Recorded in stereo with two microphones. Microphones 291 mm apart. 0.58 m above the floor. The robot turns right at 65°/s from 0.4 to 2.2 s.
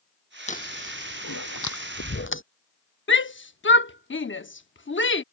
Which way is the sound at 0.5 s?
25° left (ahead or behind).